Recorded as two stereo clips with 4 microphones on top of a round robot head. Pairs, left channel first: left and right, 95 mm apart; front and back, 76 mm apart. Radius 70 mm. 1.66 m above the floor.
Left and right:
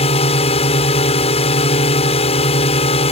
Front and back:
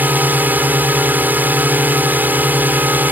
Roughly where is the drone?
Left.